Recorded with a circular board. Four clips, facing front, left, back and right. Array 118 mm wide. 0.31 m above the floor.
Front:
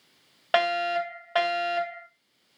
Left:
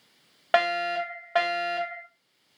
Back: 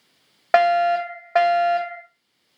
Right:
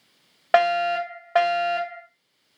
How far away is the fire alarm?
About 2 m.